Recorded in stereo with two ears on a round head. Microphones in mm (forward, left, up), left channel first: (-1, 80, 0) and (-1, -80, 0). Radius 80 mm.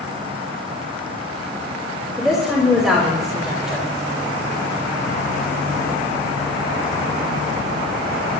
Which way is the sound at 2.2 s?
Centre (ahead or behind).